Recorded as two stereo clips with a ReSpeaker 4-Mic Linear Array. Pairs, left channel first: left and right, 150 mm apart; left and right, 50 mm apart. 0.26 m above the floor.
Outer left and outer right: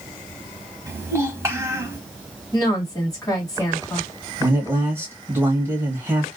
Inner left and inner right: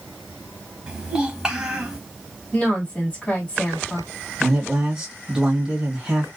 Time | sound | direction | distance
0.9 | a child speaking | 15° right (ahead or behind) | 1.0 m
2.5 | a woman speaking | 25° left (ahead or behind) | 1.7 m
4.4 | a man speaking | 15° right (ahead or behind) | 1.2 m